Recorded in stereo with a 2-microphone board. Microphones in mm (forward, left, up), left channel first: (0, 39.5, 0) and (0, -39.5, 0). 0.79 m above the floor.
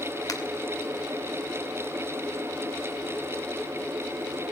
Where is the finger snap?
55° left (ahead or behind), 2.5 m.